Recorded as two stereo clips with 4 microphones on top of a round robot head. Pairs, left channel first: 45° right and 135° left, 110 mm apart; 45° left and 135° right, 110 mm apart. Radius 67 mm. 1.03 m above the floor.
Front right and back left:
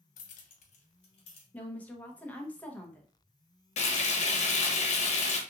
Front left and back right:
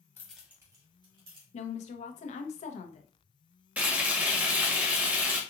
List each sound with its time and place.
0.2 s keys jangling: 30° right, 0.6 m; by 1.4 s 90° right, 1.5 m
1.5 s a woman speaking: 30° left, 0.8 m
3.8 s frying: 60° right, 1.0 m